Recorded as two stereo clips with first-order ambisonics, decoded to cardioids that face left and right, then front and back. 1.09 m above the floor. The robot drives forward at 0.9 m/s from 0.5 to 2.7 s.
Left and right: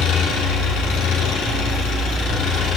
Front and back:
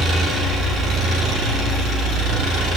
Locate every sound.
0.0 s an engine running: 125° left, 8 m; by 2.8 s 135° left, 9.5 m